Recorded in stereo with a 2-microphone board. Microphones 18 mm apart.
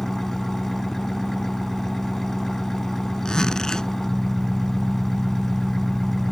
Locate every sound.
0.0 s an engine running: 25° left (ahead or behind)
3.2 s a zipper: 45° left (ahead or behind)